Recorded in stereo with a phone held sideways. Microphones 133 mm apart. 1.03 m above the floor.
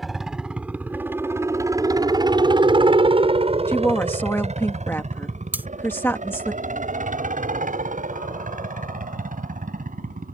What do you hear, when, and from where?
0.0 s a helicopter: centre (ahead or behind); by 10.3 s 80° right
3.7 s a woman speaking: 15° left (ahead or behind)
5.5 s cutlery clinking: 15° right (ahead or behind)